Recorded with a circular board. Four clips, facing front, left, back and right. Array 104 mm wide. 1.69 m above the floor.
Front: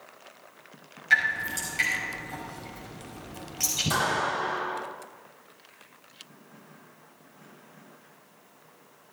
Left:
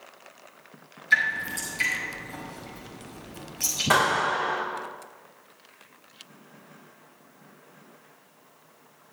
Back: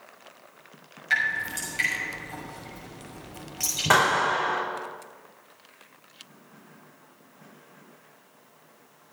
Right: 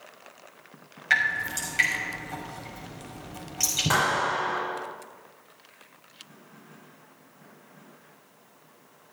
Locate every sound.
1.1 s dripping: 90° right, 6 m
3.9 s a clap: 170° left, 5 m